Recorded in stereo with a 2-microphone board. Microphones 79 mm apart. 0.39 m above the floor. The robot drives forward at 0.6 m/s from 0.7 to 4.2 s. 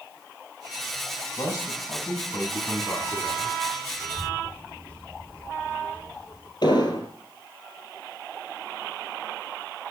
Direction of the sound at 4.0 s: 15° left (ahead or behind).